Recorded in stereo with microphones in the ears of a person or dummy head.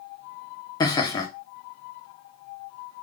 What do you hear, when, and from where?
0.8 s laughter: 20° left (ahead or behind), 0.6 m